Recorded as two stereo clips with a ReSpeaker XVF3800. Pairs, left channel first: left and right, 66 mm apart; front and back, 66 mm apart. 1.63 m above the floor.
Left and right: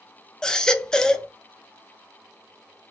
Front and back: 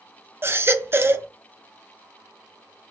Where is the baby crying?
165° left, 0.6 m.